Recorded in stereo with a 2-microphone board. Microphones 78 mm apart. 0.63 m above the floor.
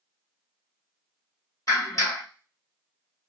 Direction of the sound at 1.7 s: 45° left (ahead or behind).